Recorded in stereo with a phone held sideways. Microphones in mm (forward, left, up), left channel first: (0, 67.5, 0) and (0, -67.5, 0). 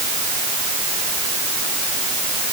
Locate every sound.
Only background noise.